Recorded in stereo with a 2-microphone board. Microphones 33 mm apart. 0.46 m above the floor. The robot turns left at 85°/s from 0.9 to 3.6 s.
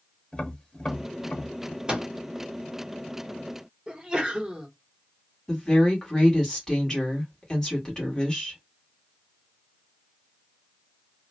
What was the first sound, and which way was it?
Tapping, 25° left (ahead or behind).